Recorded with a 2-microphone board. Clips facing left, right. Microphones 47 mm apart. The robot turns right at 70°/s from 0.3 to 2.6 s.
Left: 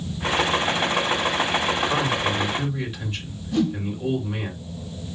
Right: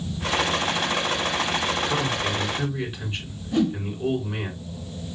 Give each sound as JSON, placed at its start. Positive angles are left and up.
{"t": 1.9, "sound": "a man speaking", "azimuth_deg": 145, "distance_m": 3.0}
{"t": 3.5, "sound": "a whoosh", "side_deg": -15, "distance_m": 1.2}